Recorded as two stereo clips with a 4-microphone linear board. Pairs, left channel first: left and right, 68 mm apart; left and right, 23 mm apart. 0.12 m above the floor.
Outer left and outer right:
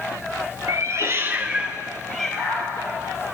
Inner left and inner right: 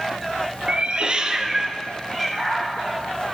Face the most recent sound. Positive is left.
turn(degrees=20)  # may be behind; listen again after turning